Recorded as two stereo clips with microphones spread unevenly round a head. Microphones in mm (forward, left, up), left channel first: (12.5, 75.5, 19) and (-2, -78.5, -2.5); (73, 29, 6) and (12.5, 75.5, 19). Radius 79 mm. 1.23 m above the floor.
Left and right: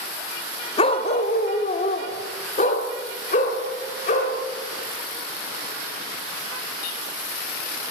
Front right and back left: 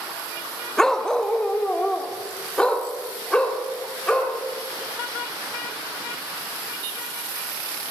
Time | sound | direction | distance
0.8 | a dog barking | 55° left | 0.8 m